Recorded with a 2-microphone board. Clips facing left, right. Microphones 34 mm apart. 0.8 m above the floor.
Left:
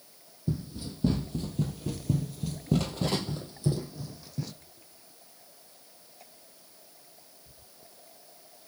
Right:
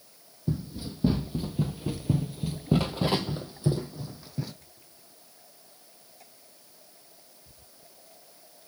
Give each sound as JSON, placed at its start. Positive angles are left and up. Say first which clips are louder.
{"t": 0.5, "sound": "running footsteps", "louder": "right 2 dB", "side_deg": -10, "distance_m": 1.2}